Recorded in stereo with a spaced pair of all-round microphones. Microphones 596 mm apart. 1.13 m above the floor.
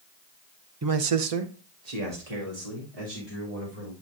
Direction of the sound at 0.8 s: 30° right (ahead or behind).